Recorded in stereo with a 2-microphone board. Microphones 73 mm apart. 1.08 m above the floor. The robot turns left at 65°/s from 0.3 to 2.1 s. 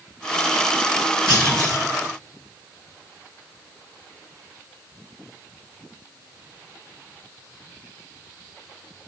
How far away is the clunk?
About 1.7 m.